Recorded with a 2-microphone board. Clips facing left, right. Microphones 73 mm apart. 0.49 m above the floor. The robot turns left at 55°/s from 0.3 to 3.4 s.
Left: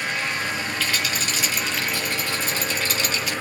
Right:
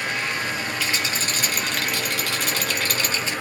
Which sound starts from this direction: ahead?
A rattle, at 0.8 s.